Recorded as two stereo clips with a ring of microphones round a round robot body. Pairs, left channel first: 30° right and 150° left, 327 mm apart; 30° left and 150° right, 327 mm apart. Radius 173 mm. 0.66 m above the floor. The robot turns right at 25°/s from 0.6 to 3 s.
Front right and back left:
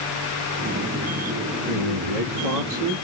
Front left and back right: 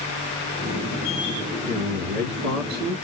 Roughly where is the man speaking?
Behind left.